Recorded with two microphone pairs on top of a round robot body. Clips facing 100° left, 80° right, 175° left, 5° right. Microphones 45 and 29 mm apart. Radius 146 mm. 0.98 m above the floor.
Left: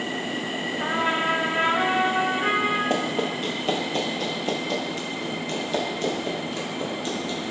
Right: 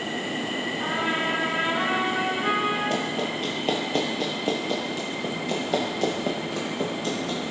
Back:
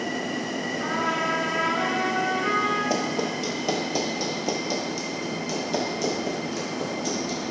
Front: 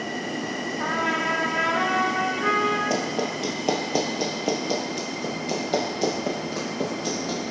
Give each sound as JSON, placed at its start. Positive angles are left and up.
{"t": 0.8, "sound": "a trumpet", "azimuth_deg": 35, "distance_m": 1.9}
{"t": 2.9, "sound": "running footsteps", "azimuth_deg": 75, "distance_m": 1.0}